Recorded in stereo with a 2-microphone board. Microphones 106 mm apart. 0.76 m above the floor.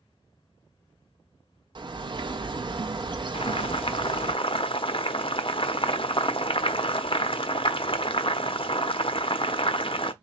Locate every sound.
1.8 s a bird: 50° right (ahead or behind), 0.8 m
3.3 s boiling: 55° left (ahead or behind), 0.6 m